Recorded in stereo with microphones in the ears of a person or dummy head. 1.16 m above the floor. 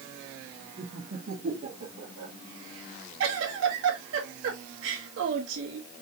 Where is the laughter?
40° right (ahead or behind), 2 m; by 2.3 s 70° right (ahead or behind), 1.4 m.